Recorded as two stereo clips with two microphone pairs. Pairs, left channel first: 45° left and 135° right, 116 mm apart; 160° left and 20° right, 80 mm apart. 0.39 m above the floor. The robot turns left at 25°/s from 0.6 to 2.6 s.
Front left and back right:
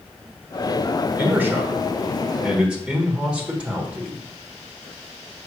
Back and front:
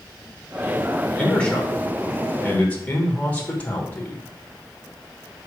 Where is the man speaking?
155° right, 1.1 m; by 4.2 s 170° left, 1.1 m.